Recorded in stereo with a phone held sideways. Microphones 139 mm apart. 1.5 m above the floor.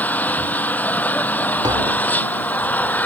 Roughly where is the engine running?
Centre.